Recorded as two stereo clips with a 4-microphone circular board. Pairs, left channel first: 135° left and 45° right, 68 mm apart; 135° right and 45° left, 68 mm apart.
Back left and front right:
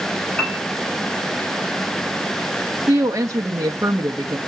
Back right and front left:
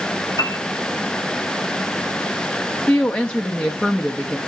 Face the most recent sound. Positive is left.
turn(degrees=-70)